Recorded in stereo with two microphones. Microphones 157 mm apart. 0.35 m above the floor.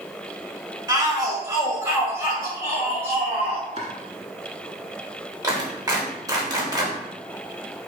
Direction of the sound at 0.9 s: 20° right (ahead or behind).